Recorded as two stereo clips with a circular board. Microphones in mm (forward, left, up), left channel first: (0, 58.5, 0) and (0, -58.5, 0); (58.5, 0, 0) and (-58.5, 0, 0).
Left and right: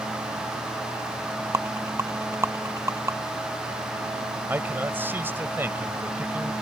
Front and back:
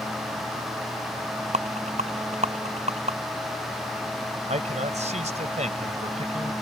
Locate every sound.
1.5 s a rattle: 160° right
4.5 s a man speaking: 165° right